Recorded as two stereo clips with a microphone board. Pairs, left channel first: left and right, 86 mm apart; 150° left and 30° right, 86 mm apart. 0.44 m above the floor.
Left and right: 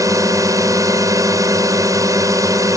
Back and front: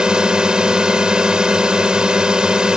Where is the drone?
105° right.